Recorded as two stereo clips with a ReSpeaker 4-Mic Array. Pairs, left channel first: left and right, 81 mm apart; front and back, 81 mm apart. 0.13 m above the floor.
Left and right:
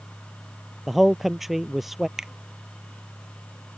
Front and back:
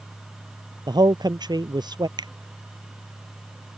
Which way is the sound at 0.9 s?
175° right.